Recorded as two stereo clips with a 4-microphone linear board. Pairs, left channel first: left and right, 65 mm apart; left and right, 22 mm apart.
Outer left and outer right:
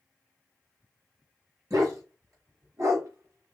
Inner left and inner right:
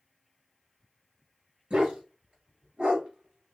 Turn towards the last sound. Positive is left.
turn(degrees=-50)  # may be behind; listen again after turning